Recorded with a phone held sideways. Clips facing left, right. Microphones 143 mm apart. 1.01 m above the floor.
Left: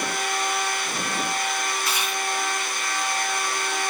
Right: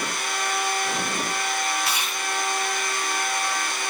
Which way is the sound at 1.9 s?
65° right (ahead or behind).